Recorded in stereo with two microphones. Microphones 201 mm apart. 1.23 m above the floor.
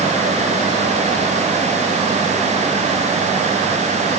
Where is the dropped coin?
No dropped coin in this recording.